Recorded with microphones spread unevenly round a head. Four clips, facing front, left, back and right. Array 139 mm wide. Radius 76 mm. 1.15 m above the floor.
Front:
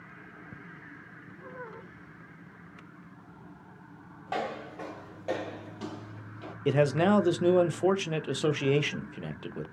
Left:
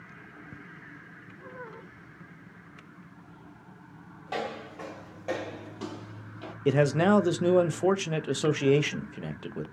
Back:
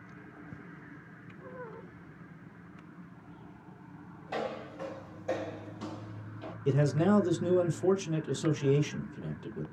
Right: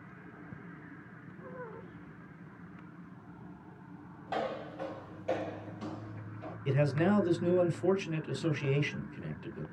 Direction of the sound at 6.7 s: 55° left.